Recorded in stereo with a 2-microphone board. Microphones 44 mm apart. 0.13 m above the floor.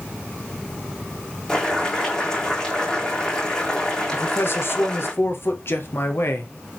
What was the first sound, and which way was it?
Boiling, 10° left (ahead or behind).